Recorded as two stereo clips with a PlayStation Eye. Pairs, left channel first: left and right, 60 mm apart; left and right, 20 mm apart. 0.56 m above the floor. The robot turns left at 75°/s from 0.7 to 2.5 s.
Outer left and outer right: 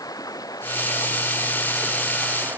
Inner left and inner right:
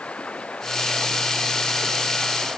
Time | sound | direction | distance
0.0 | running water | 100° left | ?